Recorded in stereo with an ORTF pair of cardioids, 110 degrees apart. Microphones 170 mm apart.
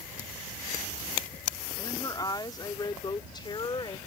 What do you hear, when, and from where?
1.8 s a woman speaking: 20° left; by 4.0 s 25° left